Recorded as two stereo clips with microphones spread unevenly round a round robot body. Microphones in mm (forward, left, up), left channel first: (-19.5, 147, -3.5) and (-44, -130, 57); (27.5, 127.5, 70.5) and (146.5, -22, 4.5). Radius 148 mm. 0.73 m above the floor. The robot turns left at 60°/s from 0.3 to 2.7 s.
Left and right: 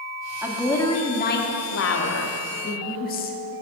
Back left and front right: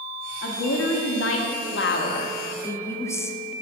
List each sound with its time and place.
0.4 s a woman speaking: straight behind, 1.1 m; by 3.6 s 40° left, 1.1 m